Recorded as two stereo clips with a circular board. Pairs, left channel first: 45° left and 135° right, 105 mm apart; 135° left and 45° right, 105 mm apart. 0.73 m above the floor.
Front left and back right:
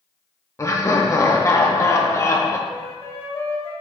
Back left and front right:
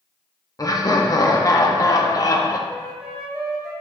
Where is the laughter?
95° left, 0.7 m.